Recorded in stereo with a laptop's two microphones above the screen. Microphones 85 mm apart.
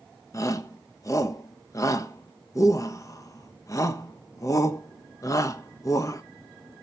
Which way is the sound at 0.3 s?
35° left (ahead or behind).